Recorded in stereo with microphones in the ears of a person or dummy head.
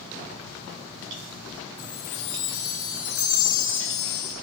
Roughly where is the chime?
Left.